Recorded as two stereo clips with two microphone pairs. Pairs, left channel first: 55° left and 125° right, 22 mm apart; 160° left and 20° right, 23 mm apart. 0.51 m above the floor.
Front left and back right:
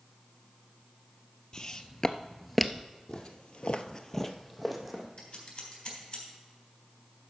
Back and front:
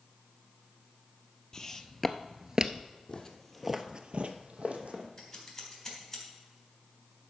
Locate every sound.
1.5 s footsteps: 100° left, 0.7 m; by 2.9 s 40° right, 0.6 m
3.1 s footsteps: 100° left, 1.2 m; by 5.1 s 40° right, 1.9 m
5.2 s scissors: 85° left, 3.5 m